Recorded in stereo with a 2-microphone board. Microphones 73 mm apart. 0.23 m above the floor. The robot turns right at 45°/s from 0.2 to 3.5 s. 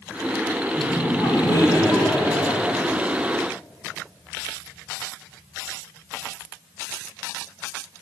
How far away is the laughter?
About 2.5 m.